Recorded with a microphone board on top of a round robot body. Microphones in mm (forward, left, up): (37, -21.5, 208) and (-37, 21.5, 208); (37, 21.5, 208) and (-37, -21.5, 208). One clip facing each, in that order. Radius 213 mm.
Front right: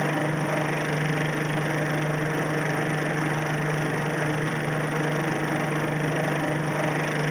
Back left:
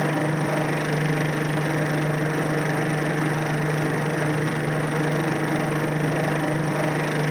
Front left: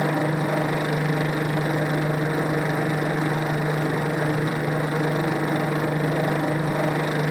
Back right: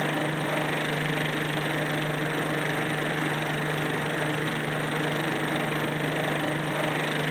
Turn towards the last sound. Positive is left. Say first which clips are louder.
# back left 2 dB, front left 5 dB
turn(degrees=65)